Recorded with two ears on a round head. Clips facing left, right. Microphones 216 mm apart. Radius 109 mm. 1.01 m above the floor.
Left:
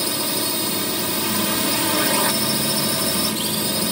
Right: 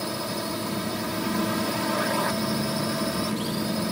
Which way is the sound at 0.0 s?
50° left (ahead or behind).